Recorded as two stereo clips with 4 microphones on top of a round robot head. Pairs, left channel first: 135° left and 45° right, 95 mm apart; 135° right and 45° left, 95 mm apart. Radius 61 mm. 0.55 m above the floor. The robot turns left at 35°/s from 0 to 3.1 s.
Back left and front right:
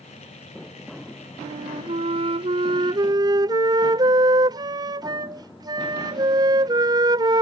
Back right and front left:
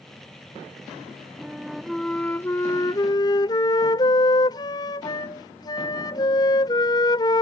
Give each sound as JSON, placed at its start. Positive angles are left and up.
{"t": 1.4, "sound": "a flute", "azimuth_deg": -30}